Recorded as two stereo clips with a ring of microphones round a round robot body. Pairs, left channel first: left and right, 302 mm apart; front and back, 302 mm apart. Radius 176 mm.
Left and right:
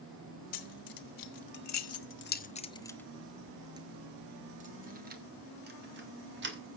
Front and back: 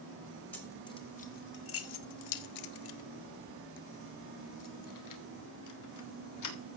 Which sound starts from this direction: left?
Keys jangling, at 0.5 s.